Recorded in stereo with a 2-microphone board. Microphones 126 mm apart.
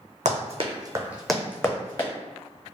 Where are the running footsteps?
65° right (ahead or behind), 1.0 m; by 2.1 s 35° left (ahead or behind), 1.4 m.